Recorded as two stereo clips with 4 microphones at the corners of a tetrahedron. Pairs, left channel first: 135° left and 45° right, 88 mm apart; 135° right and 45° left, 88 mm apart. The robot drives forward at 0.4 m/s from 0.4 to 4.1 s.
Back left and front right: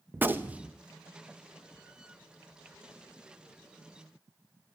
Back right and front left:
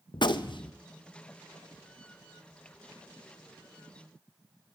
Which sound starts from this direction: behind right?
A gunshot, at 0.1 s.